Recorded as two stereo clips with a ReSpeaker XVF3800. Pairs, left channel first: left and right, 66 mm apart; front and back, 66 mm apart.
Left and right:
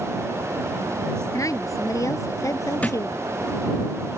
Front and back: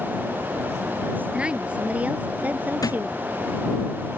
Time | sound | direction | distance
1.3 | a woman speaking | 110° left | ?
2.8 | a thud | 25° left | ?